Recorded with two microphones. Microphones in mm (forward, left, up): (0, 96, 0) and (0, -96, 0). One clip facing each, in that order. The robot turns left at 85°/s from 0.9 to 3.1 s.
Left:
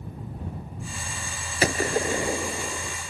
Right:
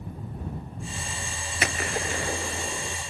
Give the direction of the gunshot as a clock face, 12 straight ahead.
9 o'clock.